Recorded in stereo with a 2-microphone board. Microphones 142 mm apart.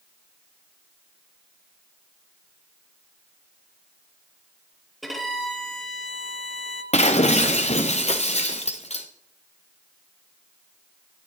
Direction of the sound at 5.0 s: Centre (ahead or behind).